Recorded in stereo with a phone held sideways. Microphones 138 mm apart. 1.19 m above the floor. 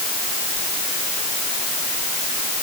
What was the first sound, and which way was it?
Only background noise.